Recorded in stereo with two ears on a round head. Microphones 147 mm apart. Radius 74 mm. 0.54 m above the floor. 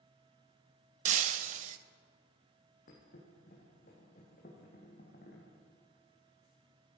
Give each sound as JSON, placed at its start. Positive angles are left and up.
{"t": 1.1, "sound": "breaking glass", "side_deg": -40, "distance_m": 0.5}
{"t": 2.9, "sound": "a thud", "side_deg": 50, "distance_m": 3.5}